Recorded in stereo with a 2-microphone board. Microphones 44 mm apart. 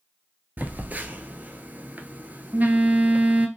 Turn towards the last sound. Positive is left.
turn(degrees=-40)  # may be behind; listen again after turning